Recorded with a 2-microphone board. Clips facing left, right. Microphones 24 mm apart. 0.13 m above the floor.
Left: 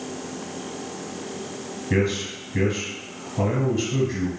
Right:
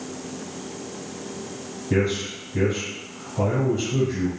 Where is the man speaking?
30° left (ahead or behind), 1.3 m.